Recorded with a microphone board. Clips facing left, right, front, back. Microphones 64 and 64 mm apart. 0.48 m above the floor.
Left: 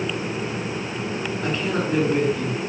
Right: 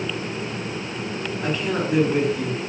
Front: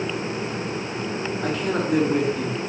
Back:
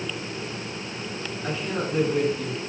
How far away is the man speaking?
About 3.5 m.